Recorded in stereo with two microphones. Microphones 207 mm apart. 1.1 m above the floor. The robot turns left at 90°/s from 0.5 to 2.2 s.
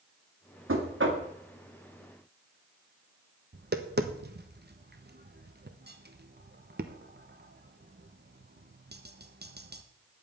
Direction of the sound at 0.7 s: 80° right.